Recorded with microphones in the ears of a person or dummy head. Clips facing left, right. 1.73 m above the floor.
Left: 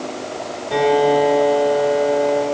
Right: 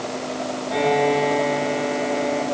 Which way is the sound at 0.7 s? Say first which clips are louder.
Left 5 dB; 55° left (ahead or behind).